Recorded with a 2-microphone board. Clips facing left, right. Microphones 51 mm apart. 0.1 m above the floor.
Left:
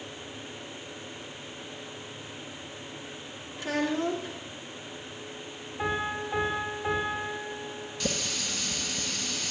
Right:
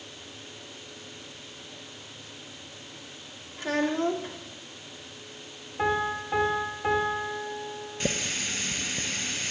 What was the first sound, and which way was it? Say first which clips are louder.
A child speaking: right 2 dB; 40° right (ahead or behind).